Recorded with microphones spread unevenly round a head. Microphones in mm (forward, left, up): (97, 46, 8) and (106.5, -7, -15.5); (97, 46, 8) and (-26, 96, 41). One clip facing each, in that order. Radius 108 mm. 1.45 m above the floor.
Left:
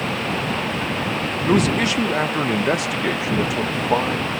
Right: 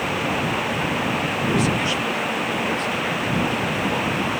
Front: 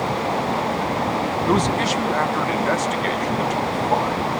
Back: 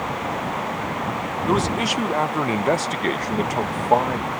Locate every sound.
1.5 s a man speaking: 65° left; by 4.3 s 125° left